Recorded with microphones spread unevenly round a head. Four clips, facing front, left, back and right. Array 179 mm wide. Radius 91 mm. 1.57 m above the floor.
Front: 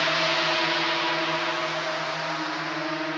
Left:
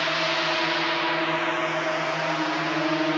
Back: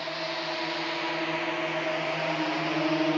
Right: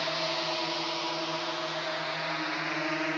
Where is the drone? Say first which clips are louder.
Left 6 dB, front 8 dB; 30° left; by 3.2 s 135° left.